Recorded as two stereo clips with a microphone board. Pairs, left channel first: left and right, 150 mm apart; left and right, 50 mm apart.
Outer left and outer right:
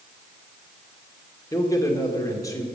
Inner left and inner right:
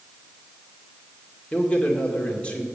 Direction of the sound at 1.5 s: 20° left (ahead or behind).